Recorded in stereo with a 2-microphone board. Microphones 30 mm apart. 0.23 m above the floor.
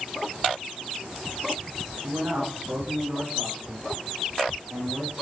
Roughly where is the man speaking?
Right.